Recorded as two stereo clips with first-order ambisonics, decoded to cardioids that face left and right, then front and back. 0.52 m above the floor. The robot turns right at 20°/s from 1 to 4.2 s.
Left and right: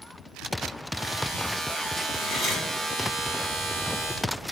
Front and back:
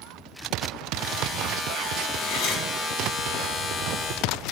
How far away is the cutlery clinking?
About 0.7 m.